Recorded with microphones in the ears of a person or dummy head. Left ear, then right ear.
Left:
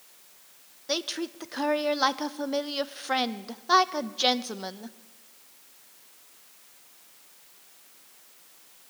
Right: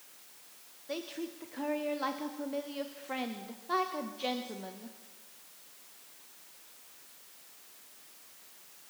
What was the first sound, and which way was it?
A woman speaking, 45° left (ahead or behind).